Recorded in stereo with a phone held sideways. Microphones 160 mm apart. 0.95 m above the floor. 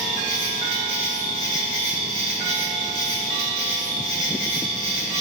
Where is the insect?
50° left (ahead or behind), 2 m.